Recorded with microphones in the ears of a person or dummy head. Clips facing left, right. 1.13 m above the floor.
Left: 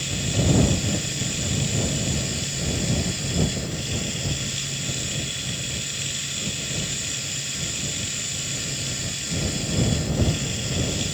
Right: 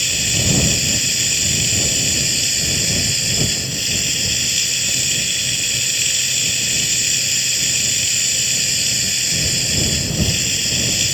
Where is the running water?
80° right.